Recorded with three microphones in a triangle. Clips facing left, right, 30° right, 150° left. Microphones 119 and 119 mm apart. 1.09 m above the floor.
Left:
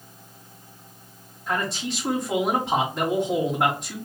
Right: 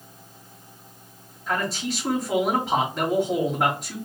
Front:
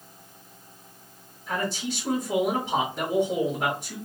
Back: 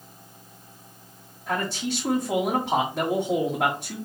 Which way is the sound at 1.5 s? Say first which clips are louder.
Right 1 dB, back 2 dB; straight behind.